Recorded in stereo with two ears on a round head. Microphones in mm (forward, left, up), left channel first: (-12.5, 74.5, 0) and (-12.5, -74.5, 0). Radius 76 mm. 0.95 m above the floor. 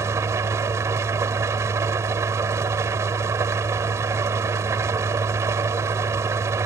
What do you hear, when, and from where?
0.0 s an engine running: 15° right (ahead or behind)